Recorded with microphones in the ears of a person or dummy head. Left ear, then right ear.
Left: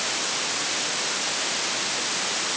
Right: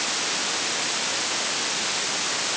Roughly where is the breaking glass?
No breaking glass in this recording.